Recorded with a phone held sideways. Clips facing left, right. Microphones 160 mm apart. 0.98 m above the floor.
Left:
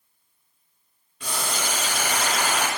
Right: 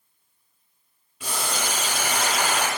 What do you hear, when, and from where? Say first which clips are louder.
1.2 s boiling: even; 10° right (ahead or behind), 2 m